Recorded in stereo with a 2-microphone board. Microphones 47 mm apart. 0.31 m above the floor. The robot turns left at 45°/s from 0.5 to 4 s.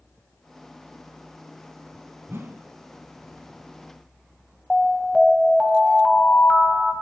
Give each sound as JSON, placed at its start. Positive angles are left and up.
{"t": 2.3, "sound": "a whoosh", "side_deg": -50, "distance_m": 1.2}
{"t": 4.7, "sound": "an alarm", "side_deg": 5, "distance_m": 2.0}